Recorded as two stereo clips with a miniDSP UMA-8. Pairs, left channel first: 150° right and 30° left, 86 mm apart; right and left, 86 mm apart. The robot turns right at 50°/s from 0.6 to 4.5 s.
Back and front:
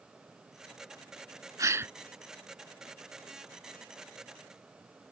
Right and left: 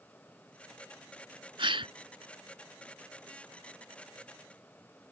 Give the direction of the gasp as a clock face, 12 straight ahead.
9 o'clock.